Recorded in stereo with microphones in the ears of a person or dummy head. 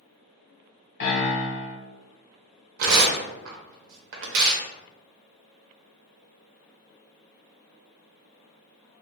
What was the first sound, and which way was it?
A piano, 60° left (ahead or behind).